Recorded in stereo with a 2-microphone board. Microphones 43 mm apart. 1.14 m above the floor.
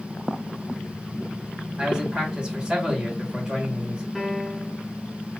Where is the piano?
5° right (ahead or behind), 1.1 m.